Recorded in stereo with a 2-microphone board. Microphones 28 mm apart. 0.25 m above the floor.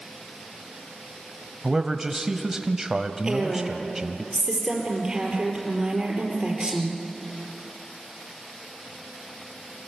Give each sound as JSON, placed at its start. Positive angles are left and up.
{"t": 1.6, "sound": "a man speaking", "side_deg": -20, "distance_m": 1.1}
{"t": 3.2, "sound": "a woman speaking", "side_deg": -25, "distance_m": 4.5}